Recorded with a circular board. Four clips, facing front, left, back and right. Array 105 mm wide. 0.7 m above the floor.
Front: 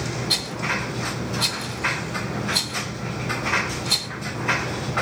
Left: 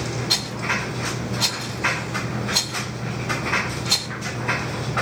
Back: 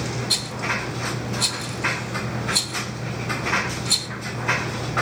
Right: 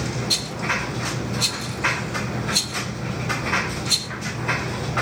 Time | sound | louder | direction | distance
0.3 | a rattle | even, even | 75° left | 1.2 m